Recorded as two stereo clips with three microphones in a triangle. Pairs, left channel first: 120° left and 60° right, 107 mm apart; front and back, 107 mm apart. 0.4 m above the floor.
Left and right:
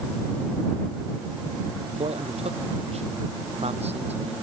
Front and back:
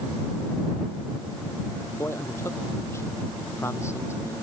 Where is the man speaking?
65° right.